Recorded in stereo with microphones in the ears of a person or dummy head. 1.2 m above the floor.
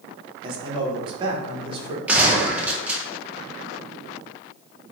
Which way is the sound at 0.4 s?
25° right (ahead or behind).